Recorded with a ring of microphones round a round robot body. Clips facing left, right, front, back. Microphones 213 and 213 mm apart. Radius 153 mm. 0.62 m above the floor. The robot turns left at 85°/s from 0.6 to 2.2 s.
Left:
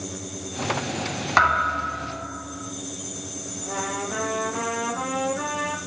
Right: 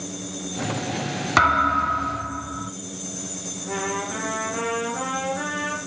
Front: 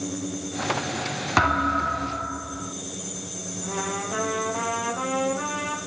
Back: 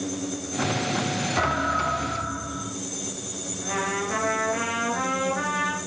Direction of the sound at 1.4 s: 35° right.